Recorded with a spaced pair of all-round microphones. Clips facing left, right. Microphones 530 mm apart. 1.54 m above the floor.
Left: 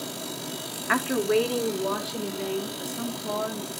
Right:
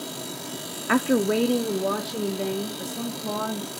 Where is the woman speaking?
60° right (ahead or behind), 0.5 m; by 3.7 s 65° right (ahead or behind), 2 m.